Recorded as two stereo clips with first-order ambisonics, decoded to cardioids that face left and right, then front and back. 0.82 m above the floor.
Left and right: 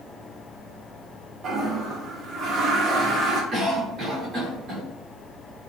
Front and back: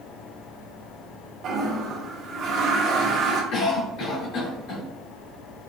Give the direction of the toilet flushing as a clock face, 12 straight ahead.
5 o'clock.